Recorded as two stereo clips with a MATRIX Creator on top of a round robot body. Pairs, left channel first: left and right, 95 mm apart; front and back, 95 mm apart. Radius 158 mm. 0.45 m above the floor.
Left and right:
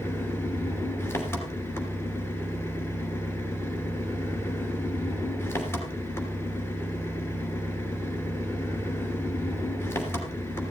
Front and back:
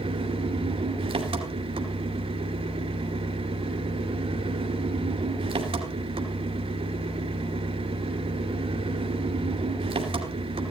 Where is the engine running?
160° left, 2.5 m.